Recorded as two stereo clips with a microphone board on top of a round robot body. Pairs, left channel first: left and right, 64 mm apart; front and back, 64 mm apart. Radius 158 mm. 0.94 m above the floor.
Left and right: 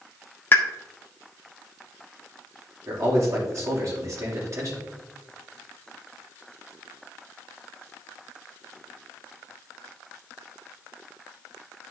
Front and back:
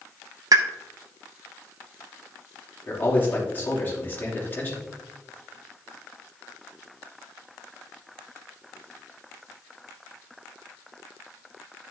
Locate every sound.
0.5 s a pop: 150° left, 0.6 m
2.9 s a man speaking: 55° right, 3 m